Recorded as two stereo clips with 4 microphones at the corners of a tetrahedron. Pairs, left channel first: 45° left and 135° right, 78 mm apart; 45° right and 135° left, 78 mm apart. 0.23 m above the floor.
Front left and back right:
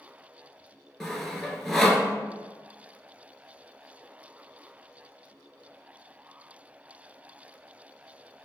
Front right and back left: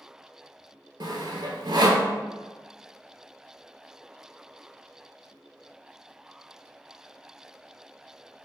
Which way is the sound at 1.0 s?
130° left.